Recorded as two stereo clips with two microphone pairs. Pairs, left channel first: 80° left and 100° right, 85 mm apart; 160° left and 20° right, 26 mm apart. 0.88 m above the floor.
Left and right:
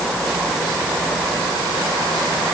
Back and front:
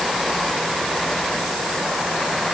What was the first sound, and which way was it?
Only background noise.